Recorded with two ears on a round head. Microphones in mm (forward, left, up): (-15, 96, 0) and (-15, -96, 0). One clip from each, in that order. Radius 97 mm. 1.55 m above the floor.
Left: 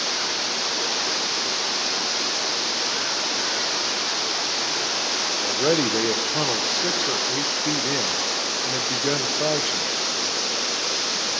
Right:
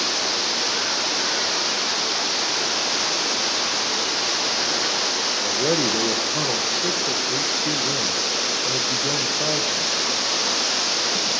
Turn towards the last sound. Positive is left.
turn(degrees=55)  # may be behind; listen again after turning